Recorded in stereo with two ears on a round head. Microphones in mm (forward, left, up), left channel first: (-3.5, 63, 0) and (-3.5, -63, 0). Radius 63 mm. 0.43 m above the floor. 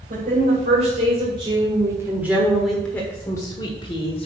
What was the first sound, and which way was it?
A woman speaking, 55° right (ahead or behind).